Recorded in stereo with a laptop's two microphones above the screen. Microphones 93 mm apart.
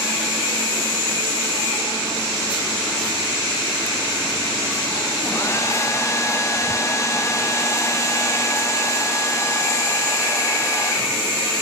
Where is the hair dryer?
35° left (ahead or behind), 0.7 m.